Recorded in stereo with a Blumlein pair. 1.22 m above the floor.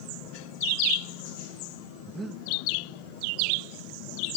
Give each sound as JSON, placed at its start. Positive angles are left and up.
{"t": 2.1, "sound": "breathing", "azimuth_deg": -10}